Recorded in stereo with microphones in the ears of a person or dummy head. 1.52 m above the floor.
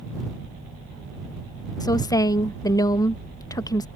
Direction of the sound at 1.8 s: 15° left (ahead or behind).